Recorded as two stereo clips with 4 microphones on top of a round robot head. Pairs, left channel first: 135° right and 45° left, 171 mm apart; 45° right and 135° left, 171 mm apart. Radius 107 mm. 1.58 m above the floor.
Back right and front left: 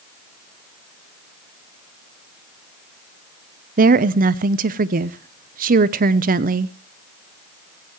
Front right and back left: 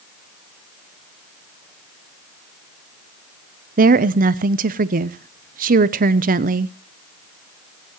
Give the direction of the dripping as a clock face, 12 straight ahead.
No dripping in this recording.